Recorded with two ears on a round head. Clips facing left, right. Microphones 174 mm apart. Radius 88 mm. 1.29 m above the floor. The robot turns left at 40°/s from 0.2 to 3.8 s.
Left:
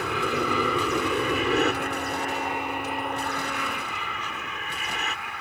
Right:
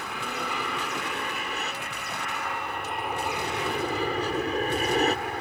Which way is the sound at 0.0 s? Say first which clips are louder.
Left 7 dB; 110° left.